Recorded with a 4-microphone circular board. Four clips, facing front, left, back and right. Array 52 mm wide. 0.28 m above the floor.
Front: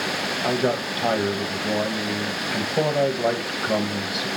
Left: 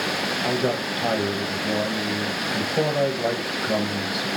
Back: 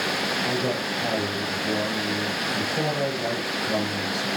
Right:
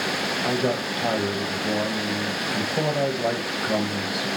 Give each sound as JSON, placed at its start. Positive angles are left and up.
{"t": 0.4, "sound": "a man speaking", "azimuth_deg": 10, "distance_m": 1.5}